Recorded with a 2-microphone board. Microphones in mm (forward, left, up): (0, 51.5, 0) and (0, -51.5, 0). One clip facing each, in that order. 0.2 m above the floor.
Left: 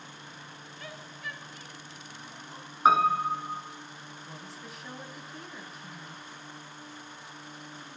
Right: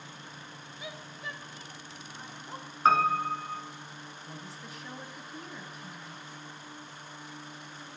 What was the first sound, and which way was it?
A woman speaking, 10° right (ahead or behind).